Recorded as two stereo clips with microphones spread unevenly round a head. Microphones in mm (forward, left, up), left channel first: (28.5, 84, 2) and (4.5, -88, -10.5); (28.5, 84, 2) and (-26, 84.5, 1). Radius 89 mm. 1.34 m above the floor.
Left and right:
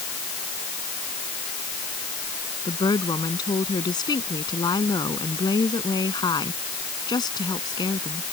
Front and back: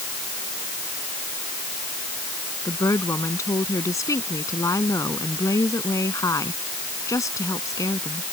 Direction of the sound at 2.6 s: 15° left.